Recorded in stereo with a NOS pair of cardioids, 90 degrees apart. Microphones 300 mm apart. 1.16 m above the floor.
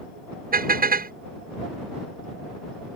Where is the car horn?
30° right.